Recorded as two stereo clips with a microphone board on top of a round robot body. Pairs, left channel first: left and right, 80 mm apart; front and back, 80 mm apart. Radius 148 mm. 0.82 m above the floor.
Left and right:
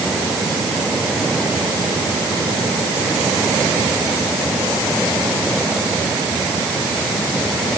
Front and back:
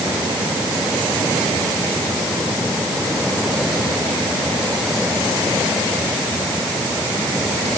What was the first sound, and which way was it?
Only background noise.